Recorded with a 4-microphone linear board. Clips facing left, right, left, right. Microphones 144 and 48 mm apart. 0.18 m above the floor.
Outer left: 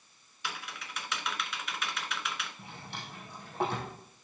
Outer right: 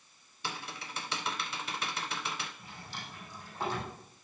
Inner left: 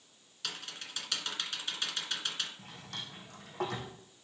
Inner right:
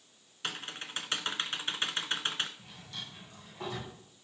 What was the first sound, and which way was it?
Typing on a keyboard, 35° right (ahead or behind).